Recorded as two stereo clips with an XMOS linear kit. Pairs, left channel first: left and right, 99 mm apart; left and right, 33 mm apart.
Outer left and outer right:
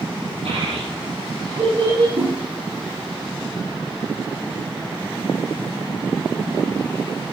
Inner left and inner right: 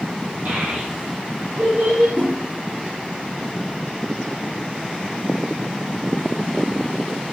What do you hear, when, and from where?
0.5 s a child speaking: 75° right (ahead or behind), 6.5 m
2.2 s a whoosh: 85° right, 4 m